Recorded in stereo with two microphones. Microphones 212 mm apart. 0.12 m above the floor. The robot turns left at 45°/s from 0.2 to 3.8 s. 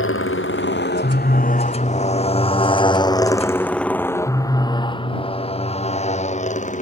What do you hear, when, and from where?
0.0 s a motorcycle: 75° left (ahead or behind); by 6.8 s 35° left (ahead or behind)